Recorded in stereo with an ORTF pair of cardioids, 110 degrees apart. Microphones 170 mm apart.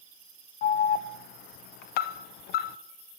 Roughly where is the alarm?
Ahead left.